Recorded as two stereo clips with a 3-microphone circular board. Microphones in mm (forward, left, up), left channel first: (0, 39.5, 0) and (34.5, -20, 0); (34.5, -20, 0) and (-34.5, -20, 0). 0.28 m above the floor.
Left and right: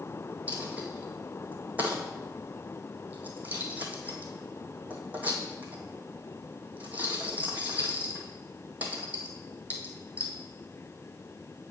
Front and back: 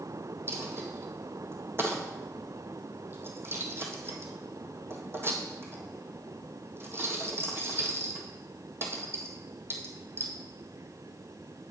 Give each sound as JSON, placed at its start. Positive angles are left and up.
{"t": 0.5, "sound": "a dropped coin", "azimuth_deg": -125, "distance_m": 1.7}